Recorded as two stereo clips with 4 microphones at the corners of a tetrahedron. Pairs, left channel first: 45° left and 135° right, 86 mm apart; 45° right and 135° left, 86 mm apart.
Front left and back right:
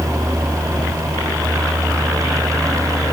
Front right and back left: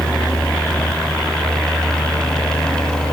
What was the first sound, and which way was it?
Only background noise.